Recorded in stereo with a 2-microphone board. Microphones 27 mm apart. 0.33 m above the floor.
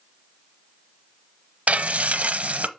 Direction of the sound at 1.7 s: 60° right (ahead or behind).